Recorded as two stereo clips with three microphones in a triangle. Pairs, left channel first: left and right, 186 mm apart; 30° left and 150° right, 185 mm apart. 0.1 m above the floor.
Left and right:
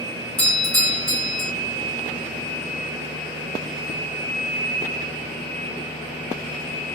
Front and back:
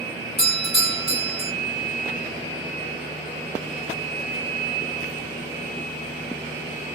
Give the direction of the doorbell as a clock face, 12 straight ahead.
5 o'clock.